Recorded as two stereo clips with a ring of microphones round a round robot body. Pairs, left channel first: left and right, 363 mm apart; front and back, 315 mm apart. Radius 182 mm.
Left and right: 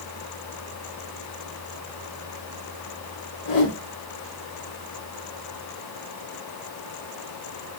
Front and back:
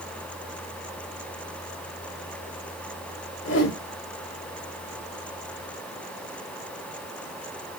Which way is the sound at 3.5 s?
50° left.